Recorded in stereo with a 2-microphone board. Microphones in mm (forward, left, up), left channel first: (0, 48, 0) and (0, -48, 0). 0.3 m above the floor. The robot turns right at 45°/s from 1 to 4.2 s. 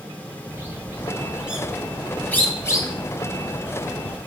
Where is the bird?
30° right (ahead or behind), 0.8 m; by 4.2 s 50° left (ahead or behind), 0.8 m.